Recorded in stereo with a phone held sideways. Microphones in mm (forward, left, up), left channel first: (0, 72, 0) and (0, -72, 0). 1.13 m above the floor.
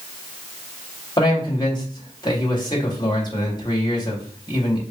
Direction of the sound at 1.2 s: 30° left (ahead or behind).